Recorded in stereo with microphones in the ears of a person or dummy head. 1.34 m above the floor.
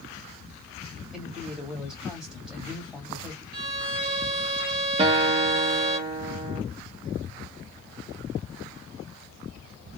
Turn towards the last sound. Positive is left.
turn(degrees=-35)  # may be behind; listen again after turning